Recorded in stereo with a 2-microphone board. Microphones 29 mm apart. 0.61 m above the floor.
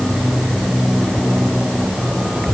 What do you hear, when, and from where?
Only background noise.